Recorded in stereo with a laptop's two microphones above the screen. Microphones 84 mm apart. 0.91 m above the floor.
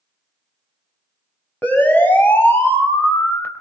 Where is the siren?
20° left (ahead or behind), 6 m; by 3.5 s 30° left (ahead or behind), 4 m.